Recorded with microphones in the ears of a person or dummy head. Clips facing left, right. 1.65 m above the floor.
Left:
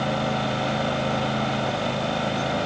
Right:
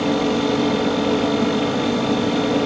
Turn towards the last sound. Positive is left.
turn(degrees=-75)  # may be behind; listen again after turning